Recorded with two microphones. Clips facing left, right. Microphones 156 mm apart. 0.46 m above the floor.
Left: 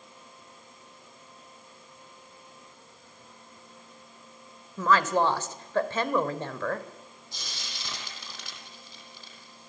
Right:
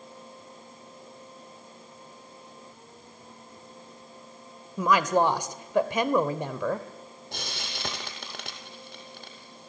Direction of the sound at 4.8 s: 15° right (ahead or behind).